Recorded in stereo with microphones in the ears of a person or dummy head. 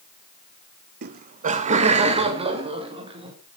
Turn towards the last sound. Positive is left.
turn(degrees=-35)  # may be behind; listen again after turning